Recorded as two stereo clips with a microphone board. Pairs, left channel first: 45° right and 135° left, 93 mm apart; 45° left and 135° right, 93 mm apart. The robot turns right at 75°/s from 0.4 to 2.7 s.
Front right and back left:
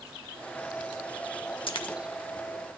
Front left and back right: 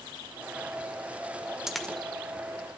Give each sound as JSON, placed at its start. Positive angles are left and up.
{"t": 1.7, "sound": "a dropped coin", "azimuth_deg": -50, "distance_m": 0.8}